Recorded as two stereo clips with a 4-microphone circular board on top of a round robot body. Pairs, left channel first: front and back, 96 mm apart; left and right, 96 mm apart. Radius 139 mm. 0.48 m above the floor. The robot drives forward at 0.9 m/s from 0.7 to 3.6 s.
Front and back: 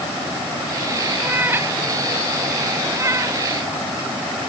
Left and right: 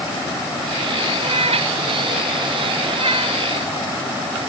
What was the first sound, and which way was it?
A cat meowing, 110° right.